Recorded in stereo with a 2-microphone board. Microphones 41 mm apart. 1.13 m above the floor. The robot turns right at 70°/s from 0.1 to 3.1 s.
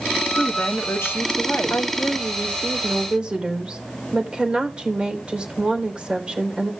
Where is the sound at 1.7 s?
105° left, 3.5 m; by 6.7 s 155° right, 3.5 m.